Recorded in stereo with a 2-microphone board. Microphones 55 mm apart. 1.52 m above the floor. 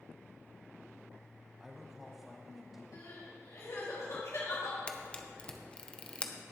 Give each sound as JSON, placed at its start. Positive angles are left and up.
{"t": 1.6, "sound": "a man speaking", "side_deg": -10, "distance_m": 1.0}
{"t": 2.9, "sound": "crying", "side_deg": 70, "distance_m": 3.0}
{"t": 4.9, "sound": "a camera shutter", "side_deg": 20, "distance_m": 0.8}